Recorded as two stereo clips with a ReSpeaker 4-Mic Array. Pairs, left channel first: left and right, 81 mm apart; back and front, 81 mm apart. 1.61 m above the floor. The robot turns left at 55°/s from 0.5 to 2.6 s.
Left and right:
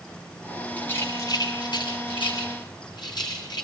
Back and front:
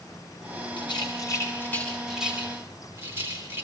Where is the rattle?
165° left, 9.5 m; by 3.6 s 60° left, 9.5 m.